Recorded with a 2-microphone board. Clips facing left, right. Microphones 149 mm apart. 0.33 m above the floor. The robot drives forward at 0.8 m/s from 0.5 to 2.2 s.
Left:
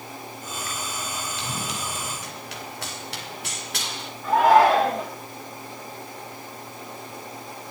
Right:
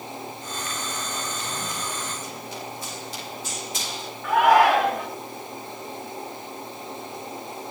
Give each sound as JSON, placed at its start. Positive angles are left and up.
{"t": 1.4, "sound": "running footsteps", "side_deg": 85, "distance_m": 6.5}
{"t": 4.2, "sound": "a shout", "side_deg": 30, "distance_m": 4.0}